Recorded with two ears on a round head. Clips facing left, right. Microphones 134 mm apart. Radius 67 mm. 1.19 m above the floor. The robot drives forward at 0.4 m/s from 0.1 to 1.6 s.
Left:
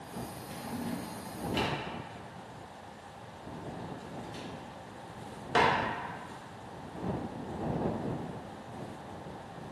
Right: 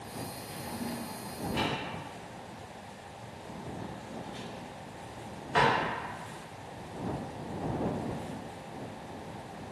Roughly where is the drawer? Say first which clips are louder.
Left 1 dB; left.